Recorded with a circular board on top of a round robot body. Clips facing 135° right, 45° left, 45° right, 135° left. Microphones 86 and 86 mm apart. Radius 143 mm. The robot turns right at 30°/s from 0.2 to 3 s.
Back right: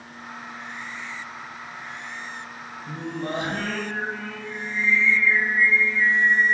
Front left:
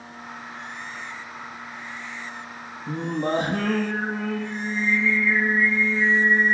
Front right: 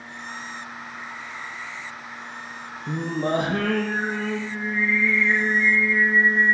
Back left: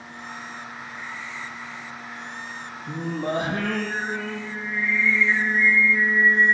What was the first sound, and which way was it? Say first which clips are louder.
Singing: front left 5 dB, front right 3 dB; 10° right.